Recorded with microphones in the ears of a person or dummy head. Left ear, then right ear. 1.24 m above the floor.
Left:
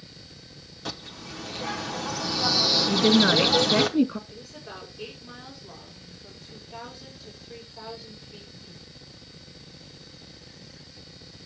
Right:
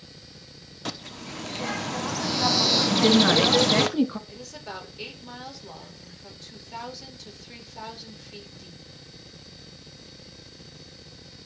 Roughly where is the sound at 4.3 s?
Right.